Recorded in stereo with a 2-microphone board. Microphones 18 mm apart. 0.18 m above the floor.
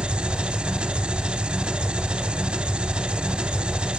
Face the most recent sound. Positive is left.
turn(degrees=-60)  # may be behind; listen again after turning